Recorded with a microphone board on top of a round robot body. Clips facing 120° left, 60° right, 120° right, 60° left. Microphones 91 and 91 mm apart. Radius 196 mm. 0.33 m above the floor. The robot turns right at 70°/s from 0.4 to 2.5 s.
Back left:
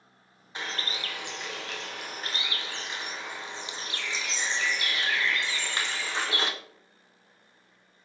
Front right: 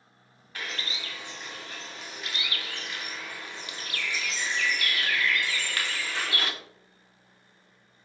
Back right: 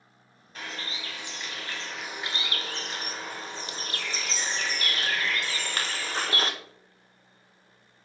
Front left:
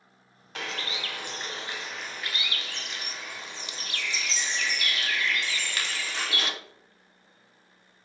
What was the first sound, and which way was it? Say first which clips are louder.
A bird: back left 2 dB, front left 3 dB; 50° left.